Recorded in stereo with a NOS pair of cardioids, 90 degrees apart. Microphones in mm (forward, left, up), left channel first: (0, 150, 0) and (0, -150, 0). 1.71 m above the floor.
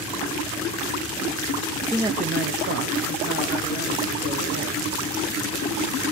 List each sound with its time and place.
1.9 s a man speaking: 10° left, 0.6 m; by 4.9 s 75° right, 3.5 m